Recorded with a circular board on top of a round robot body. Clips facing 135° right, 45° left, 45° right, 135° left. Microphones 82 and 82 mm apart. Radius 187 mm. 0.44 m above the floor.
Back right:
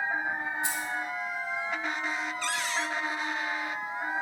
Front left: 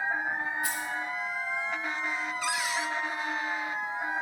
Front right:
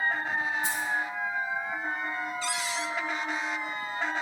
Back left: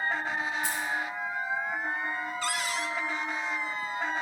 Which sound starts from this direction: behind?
Keys jangling, at 0.6 s.